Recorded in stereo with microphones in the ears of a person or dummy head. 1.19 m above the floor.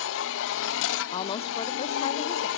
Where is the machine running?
75° left (ahead or behind), 0.9 m.